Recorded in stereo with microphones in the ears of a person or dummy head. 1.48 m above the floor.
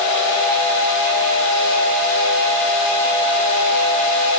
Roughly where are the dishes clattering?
No dishes clattering in this recording.